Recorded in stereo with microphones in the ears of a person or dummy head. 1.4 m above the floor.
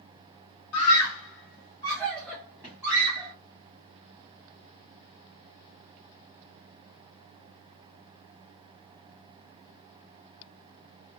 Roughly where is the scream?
Left.